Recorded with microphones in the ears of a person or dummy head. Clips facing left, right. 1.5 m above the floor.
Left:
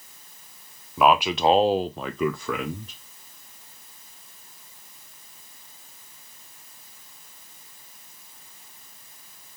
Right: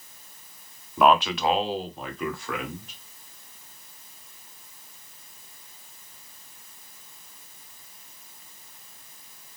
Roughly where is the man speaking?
Centre.